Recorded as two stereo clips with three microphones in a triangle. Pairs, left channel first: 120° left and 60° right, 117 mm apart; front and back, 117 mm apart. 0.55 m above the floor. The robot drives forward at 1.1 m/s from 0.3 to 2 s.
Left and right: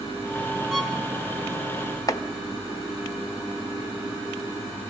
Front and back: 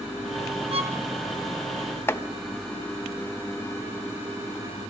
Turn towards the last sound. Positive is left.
turn(degrees=70)